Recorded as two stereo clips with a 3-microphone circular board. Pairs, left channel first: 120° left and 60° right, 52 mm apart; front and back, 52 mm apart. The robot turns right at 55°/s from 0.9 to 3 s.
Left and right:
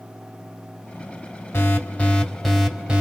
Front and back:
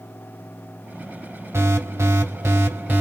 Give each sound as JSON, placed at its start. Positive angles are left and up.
{"t": 1.5, "sound": "an alarm", "azimuth_deg": 155, "distance_m": 1.7}